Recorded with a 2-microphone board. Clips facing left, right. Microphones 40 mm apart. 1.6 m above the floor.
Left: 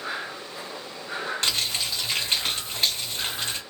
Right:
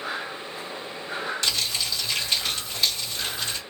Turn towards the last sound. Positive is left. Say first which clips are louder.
# left 1 dB
turn(degrees=45)  # may be behind; listen again after turning